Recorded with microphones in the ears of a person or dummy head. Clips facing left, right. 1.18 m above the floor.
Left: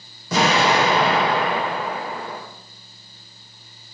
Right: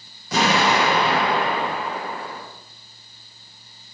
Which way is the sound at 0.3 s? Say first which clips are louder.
Left 1 dB; 80° left.